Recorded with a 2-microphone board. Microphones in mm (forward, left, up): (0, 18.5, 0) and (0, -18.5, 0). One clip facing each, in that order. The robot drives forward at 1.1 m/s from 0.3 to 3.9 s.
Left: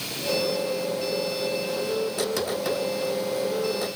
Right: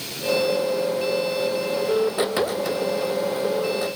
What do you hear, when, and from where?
Only background noise.